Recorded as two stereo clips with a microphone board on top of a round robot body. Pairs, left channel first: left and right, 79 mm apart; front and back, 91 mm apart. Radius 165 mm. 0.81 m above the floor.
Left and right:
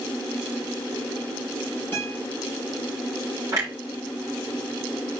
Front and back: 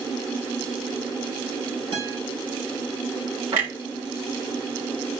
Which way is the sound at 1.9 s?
155° left.